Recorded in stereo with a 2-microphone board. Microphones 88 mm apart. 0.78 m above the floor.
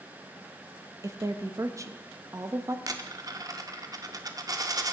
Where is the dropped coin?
40° right (ahead or behind), 0.5 m.